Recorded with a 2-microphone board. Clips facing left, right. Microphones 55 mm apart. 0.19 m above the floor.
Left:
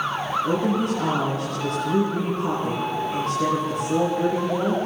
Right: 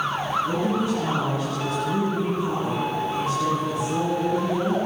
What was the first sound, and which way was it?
A woman speaking, 60° left (ahead or behind).